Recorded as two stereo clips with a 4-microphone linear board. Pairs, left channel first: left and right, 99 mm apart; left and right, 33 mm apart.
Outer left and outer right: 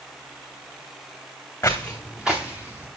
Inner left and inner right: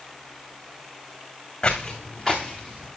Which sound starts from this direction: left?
Footsteps, at 1.6 s.